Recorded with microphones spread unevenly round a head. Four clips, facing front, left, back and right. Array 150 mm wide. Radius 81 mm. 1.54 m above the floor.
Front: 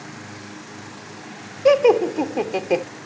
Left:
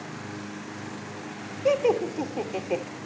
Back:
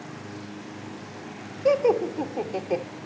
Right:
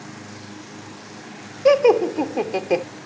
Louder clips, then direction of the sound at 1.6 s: Right 8 dB, front 6 dB; 40° right.